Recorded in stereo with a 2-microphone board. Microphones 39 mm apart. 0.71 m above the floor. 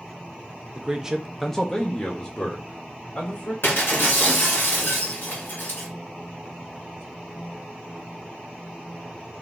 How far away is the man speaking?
About 0.8 m.